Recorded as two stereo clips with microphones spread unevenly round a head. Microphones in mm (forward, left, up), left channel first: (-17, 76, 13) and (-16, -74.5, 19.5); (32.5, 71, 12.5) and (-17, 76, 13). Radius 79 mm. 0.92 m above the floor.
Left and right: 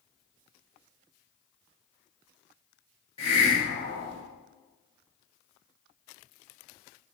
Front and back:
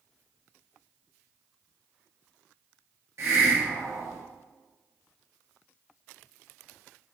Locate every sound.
3.2 s a hiss: 140° left, 1.1 m